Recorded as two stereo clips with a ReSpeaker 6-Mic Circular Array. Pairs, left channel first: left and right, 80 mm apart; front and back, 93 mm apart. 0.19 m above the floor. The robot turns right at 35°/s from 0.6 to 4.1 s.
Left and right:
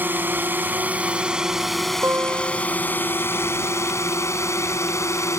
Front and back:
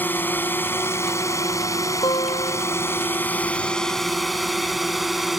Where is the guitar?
35° right; by 2.7 s 10° right.